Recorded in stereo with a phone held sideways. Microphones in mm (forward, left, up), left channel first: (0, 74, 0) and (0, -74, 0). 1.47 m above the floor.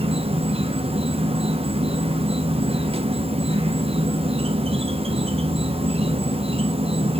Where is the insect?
40° right (ahead or behind), 0.8 m.